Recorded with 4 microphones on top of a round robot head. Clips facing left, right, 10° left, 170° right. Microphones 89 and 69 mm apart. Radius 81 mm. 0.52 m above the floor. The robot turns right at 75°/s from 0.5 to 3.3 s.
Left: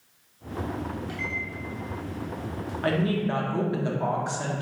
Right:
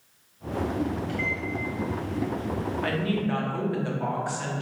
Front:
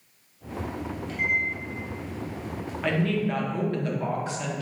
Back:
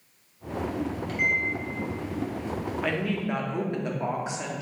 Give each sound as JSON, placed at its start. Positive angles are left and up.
{"t": 1.1, "sound": "a microwave", "azimuth_deg": 155, "distance_m": 0.9}
{"t": 2.8, "sound": "a woman speaking", "azimuth_deg": 100, "distance_m": 0.7}